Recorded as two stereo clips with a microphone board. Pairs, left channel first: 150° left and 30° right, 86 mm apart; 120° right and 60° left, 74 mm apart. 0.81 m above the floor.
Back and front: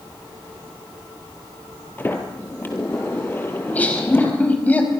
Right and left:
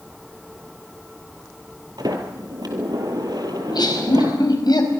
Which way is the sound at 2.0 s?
85° left.